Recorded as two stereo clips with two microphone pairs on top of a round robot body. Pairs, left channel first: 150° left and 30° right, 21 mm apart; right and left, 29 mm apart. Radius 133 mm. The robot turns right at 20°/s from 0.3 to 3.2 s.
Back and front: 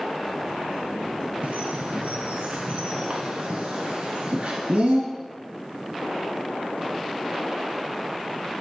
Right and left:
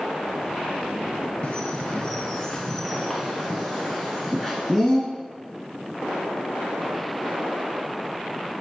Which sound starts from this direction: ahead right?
A bird, at 1.4 s.